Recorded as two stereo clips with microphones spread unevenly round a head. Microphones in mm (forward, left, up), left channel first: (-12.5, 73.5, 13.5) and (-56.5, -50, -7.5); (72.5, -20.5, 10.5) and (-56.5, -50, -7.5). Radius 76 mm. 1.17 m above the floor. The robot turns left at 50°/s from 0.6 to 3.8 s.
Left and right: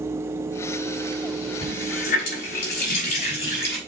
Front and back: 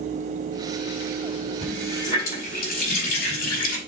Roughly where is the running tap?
Left.